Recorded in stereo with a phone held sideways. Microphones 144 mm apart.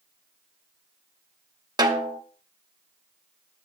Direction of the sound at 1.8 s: 30° right (ahead or behind).